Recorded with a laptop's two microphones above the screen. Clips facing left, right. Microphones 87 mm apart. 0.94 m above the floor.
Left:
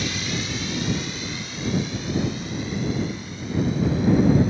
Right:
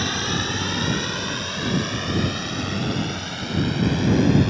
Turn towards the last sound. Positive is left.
turn(degrees=-70)  # may be behind; listen again after turning